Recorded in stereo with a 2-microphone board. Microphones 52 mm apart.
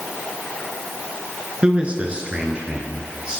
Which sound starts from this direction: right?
A man speaking, at 1.6 s.